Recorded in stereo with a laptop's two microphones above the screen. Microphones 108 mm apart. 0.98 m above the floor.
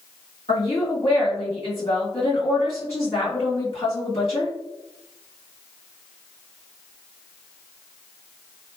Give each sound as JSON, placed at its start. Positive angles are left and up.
{"t": 0.5, "sound": "a woman speaking", "side_deg": 60, "distance_m": 1.7}